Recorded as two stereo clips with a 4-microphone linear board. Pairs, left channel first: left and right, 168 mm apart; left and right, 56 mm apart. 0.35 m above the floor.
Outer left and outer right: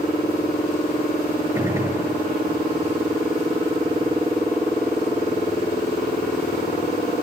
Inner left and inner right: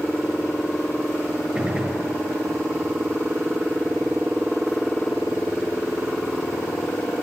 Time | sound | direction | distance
1.6 | a gunshot | 20° right (ahead or behind) | 6 m